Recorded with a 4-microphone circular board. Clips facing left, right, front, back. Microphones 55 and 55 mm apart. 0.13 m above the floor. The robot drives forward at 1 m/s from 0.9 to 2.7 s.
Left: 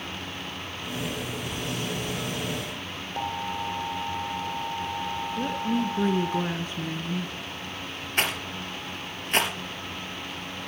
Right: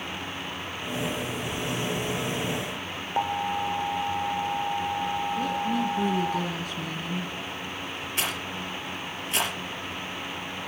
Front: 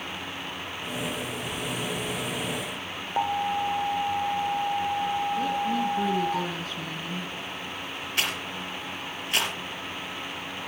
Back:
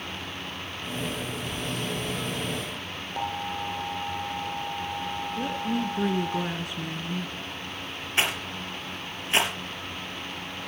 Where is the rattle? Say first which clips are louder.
Left 4 dB, back 3 dB; 120° left, 2.5 m.